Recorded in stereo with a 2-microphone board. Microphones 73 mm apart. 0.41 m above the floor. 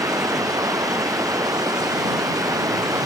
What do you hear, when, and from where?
0.0 s running water: 50° right (ahead or behind)